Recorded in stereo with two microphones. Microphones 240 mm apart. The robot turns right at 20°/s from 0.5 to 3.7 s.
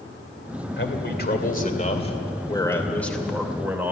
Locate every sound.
0.8 s a man speaking: 130° left, 2.5 m; by 3.9 s 170° right, 2.5 m